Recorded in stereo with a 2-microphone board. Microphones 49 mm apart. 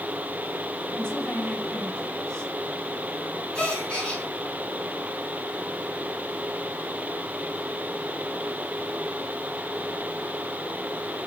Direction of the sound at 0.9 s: 15° left (ahead or behind).